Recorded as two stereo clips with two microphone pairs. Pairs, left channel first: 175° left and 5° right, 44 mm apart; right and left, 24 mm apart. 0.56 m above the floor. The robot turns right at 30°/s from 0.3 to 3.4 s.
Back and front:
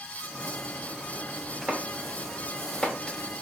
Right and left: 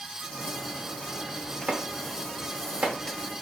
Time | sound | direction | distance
1.7 | chopping | 60° left | 0.8 m